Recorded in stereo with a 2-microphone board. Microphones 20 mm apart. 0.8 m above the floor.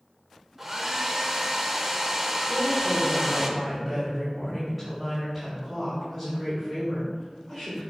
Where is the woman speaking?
Centre (ahead or behind), 3.5 m.